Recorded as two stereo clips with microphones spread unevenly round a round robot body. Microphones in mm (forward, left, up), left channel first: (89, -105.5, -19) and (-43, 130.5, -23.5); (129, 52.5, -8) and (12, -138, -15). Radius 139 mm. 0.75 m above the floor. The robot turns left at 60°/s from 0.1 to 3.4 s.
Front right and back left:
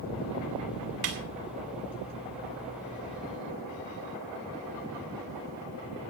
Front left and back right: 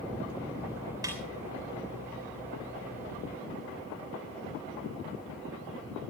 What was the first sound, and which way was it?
A snare drum, 160° left.